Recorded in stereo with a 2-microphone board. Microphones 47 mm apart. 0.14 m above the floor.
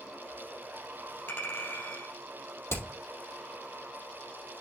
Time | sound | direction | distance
1.3 | a clink | 50° left (ahead or behind) | 2.5 m
2.7 | hammering | 65° left (ahead or behind) | 3.5 m